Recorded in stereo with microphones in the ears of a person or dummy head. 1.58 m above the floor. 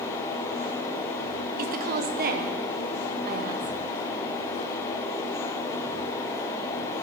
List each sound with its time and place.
1.6 s a woman speaking: 50° right (ahead or behind), 0.8 m